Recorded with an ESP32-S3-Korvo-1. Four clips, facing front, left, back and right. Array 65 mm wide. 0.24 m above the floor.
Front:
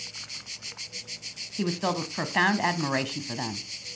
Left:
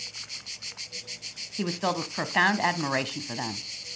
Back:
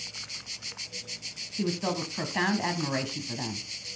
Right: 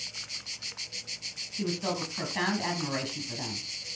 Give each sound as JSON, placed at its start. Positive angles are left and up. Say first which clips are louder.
{"t": 1.6, "sound": "a woman speaking", "louder": "left 3 dB, front 2 dB", "azimuth_deg": 60, "distance_m": 1.3}